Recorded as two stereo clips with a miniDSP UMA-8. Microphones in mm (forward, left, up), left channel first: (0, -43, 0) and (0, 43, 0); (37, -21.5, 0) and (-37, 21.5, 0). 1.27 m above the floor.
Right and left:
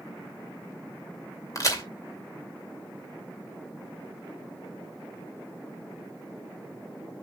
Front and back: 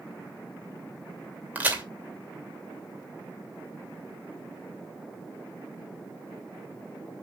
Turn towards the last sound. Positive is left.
turn(degrees=-140)